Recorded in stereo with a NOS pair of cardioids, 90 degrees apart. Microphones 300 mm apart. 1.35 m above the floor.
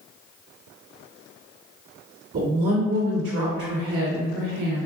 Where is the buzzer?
I don't hear a buzzer.